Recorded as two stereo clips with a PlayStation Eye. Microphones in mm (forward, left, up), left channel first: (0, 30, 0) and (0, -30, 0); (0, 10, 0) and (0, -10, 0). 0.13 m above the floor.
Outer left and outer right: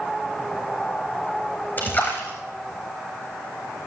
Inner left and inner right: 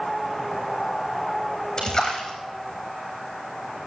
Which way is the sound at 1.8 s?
30° left (ahead or behind).